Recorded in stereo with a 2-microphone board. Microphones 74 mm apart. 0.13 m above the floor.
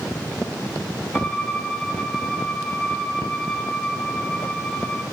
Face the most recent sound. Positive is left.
turn(degrees=5)  # may be behind; listen again after turning